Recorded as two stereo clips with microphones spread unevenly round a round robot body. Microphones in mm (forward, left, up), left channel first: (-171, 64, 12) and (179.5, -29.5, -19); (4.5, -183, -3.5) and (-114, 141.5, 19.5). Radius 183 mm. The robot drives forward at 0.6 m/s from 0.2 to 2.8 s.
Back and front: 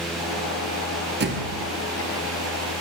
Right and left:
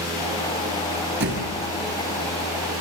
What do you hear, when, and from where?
1.2 s a thud: 50° left, 3.5 m